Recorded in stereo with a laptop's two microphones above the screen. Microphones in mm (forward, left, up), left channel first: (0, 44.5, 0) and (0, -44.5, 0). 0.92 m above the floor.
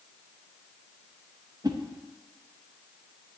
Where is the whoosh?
45° right (ahead or behind), 0.8 m.